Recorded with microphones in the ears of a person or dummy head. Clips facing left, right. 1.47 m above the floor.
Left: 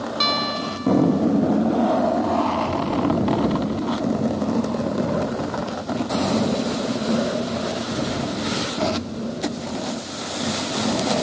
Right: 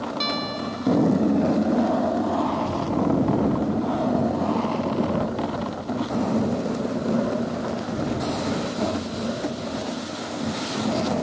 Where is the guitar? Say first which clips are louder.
Left 2 dB; 5° left (ahead or behind).